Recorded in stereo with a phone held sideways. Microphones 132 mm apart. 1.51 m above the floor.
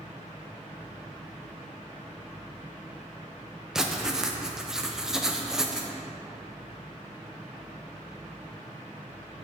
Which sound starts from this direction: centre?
Writing, at 3.8 s.